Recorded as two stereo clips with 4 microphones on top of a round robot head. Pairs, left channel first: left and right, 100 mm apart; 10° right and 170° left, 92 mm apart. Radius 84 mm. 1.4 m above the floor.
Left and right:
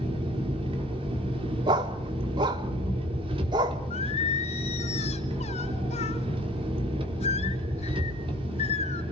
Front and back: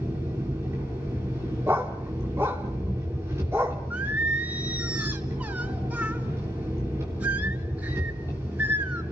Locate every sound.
0.0 s an engine running: 120° right, 3.5 m
1.7 s a dog barking: 120° right, 1.2 m
3.9 s singing: 100° left, 3.5 m